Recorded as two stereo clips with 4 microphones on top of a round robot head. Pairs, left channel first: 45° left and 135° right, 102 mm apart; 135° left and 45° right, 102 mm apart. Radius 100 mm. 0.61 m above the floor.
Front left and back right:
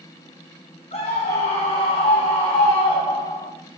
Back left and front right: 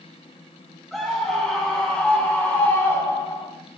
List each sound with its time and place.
0.9 s a scream: 45° left, 2 m; by 3.5 s 90° left, 1.7 m